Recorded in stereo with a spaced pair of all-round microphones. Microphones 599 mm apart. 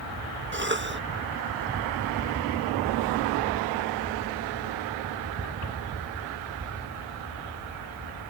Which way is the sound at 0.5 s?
20° right (ahead or behind).